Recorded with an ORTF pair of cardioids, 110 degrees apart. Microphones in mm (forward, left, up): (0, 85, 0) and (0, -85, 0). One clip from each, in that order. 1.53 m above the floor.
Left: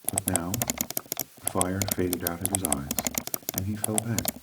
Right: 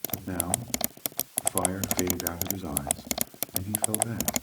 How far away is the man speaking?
About 2 m.